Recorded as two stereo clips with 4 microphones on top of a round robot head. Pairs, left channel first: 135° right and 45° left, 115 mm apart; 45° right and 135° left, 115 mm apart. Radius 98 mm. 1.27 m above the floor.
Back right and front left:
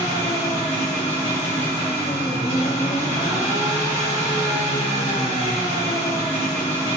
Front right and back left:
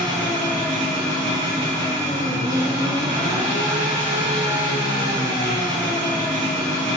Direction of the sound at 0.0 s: 175° right.